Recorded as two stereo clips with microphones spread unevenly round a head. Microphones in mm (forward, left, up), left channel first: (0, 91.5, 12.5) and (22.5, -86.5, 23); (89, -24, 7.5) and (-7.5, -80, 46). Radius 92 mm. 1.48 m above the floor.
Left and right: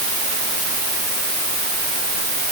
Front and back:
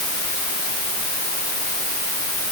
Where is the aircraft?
No aircraft in this recording.